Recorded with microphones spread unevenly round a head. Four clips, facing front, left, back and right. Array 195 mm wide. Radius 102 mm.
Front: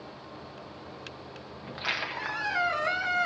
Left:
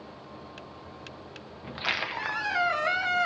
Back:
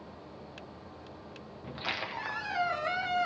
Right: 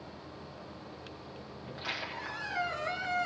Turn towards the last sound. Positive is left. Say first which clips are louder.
# left 8 dB, front 3 dB
turn(degrees=120)